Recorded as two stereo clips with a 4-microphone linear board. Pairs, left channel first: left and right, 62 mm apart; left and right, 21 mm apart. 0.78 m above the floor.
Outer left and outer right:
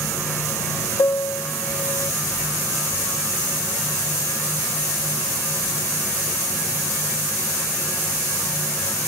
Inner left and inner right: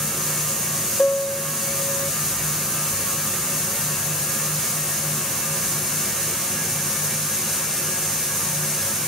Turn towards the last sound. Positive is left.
turn(degrees=55)  # may be behind; listen again after turning